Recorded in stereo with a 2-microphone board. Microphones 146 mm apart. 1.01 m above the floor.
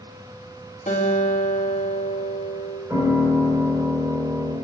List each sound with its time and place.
0.9 s a guitar: 65° left (ahead or behind), 1.8 m
2.9 s a piano: 30° right (ahead or behind), 3.5 m